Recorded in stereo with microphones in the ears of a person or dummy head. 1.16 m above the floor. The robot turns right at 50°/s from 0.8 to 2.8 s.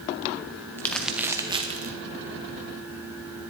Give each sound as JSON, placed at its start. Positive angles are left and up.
{"t": 0.8, "sound": "crumpling", "side_deg": 10, "distance_m": 0.7}